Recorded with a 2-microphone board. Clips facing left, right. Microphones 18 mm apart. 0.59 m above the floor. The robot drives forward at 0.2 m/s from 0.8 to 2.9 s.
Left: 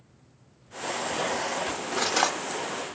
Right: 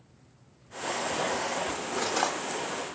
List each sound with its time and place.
1.7 s cutlery clinking: 35° left (ahead or behind), 0.8 m; by 2.4 s 30° left (ahead or behind), 0.9 m